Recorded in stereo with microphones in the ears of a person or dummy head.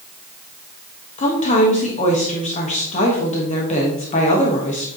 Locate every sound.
1.2 s a woman speaking: 35° left (ahead or behind), 1.6 m